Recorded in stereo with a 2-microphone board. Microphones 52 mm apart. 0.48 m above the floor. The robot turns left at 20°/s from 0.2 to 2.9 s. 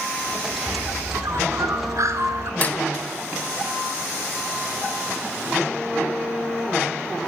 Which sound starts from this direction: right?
A bird, at 0.7 s.